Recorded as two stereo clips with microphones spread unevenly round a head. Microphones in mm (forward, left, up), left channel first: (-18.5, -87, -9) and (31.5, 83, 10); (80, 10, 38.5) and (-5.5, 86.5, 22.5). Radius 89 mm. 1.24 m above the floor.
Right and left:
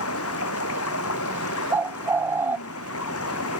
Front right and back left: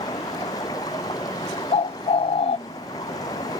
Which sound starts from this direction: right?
Running water, at 0.0 s.